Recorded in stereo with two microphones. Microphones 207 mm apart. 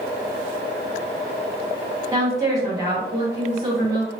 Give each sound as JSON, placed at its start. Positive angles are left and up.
{"t": 2.1, "sound": "a woman speaking", "side_deg": -15, "distance_m": 1.5}